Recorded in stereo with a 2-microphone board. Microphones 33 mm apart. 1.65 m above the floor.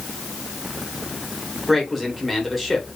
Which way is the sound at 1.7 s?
Centre (ahead or behind).